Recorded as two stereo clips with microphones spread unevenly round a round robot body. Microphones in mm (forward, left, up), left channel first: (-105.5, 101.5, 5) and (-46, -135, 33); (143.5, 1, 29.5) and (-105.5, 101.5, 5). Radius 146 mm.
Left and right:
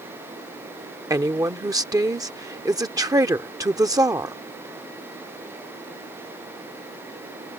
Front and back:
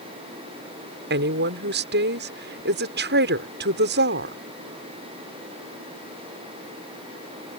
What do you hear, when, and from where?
1.1 s a woman speaking: 155° right